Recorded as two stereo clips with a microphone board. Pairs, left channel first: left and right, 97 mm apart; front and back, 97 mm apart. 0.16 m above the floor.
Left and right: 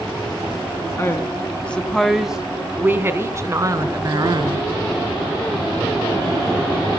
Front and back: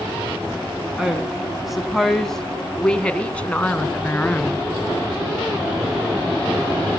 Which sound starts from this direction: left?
A woman speaking, at 1.0 s.